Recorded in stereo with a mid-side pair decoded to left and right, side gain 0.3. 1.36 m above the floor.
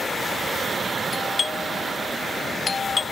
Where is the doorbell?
50° left, 0.9 m.